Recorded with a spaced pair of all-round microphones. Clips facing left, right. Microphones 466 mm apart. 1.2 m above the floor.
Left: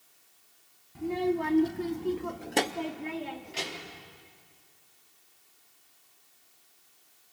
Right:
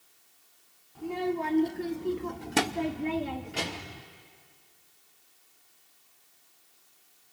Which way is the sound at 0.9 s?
40° left (ahead or behind).